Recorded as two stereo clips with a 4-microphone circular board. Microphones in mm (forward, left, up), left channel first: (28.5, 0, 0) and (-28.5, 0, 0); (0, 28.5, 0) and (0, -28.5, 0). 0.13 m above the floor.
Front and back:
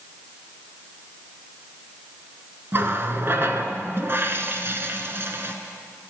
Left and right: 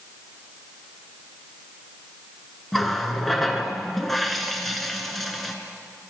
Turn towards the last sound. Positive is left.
turn(degrees=175)